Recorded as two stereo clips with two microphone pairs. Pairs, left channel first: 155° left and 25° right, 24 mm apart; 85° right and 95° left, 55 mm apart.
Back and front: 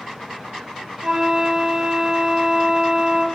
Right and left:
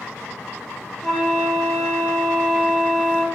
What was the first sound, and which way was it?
A flute, 5° right.